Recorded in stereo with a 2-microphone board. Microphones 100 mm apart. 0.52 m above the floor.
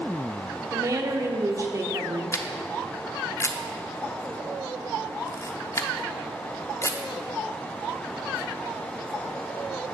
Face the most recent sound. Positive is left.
turn(degrees=30)  # may be behind; listen again after turning